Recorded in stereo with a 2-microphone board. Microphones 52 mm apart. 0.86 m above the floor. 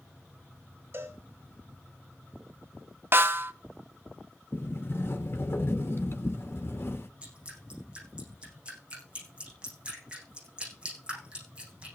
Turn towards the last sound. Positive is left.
turn(degrees=-20)  # may be behind; listen again after turning